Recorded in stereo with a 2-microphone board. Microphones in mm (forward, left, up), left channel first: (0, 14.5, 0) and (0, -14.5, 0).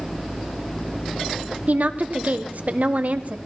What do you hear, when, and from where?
1.7 s a woman speaking: 60° right (ahead or behind), 0.9 m